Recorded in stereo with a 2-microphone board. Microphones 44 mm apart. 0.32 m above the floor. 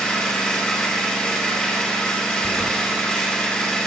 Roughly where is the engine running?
Centre.